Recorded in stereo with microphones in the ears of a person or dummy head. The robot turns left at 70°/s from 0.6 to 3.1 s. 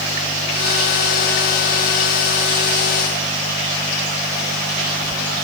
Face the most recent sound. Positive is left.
No sound to turn to.